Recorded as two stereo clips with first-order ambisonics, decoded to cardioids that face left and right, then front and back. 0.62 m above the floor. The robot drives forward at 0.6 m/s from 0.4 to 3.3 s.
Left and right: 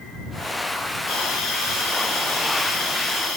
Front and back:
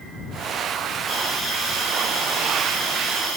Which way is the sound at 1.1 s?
95° left.